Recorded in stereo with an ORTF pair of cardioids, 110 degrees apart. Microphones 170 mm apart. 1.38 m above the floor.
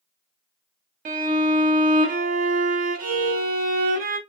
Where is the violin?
60° right, 0.8 m.